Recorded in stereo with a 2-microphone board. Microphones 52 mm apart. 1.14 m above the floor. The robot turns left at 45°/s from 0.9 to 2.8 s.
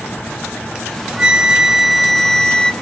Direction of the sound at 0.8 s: 20° right (ahead or behind).